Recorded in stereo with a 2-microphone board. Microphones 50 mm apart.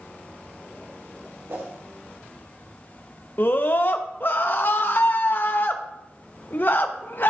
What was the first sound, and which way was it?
A whoosh, 65° right (ahead or behind).